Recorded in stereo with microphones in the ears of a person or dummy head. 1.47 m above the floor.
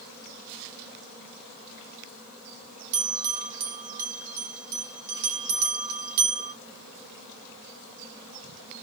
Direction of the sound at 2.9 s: 55° right (ahead or behind).